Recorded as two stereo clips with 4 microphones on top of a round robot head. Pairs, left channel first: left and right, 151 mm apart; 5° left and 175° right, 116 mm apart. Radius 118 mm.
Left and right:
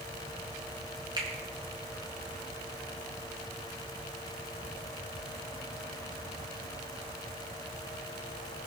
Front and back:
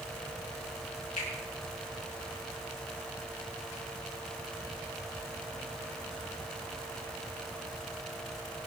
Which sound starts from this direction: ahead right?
A finger snap, at 1.2 s.